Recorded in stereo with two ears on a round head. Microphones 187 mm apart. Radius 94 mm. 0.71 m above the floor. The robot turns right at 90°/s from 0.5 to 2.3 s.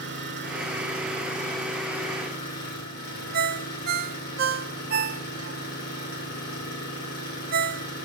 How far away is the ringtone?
About 0.7 m.